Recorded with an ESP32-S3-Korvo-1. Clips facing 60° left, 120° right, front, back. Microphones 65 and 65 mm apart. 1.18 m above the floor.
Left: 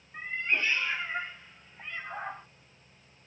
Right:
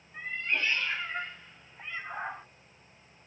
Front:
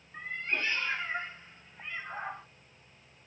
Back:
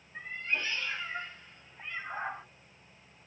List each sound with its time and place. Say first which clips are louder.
0.1 s a cat meowing: left 2 dB, front 1 dB; 5° right, 1.1 m; by 2.5 s 170° right, 0.7 m